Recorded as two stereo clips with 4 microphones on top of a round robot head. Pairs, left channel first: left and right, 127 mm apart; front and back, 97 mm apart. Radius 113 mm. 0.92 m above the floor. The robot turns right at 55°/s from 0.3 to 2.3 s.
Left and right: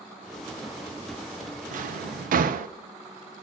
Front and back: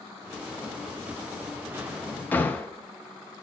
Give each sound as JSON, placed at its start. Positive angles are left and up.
{"t": 1.7, "sound": "a drawer", "azimuth_deg": -110, "distance_m": 0.5}